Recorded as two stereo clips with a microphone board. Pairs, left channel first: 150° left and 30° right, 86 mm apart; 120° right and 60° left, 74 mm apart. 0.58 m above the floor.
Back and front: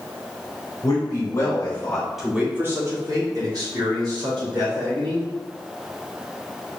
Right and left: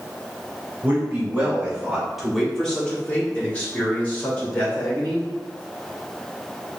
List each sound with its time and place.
0.8 s a man speaking: 125° left, 1.7 m; by 5.3 s 55° right, 3.5 m